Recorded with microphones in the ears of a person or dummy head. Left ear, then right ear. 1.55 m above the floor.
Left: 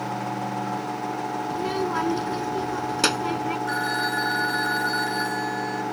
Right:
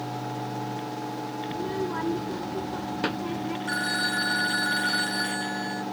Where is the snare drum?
I don't hear a snare drum.